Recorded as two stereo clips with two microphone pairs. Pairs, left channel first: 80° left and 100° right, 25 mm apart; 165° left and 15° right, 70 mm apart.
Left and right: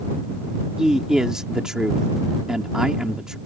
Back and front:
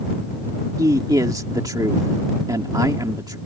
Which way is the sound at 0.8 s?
35° right.